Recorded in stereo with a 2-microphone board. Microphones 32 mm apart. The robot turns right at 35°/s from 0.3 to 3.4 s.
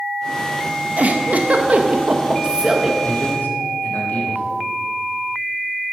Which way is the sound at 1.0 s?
100° right.